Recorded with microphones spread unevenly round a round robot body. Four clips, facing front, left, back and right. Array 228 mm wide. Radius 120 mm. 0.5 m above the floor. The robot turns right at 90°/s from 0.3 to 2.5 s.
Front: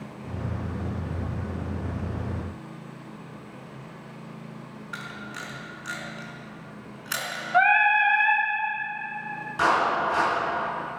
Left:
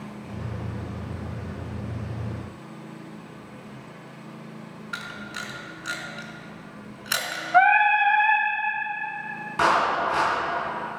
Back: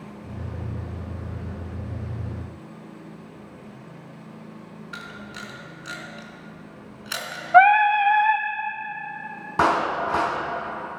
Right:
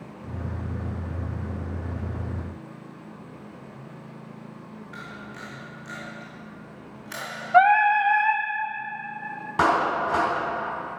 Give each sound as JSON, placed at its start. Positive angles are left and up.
{"t": 4.9, "sound": "a camera shutter", "azimuth_deg": 85, "distance_m": 4.0}
{"t": 7.5, "sound": "singing", "azimuth_deg": -170, "distance_m": 0.7}
{"t": 9.6, "sound": "a clap", "azimuth_deg": -155, "distance_m": 4.0}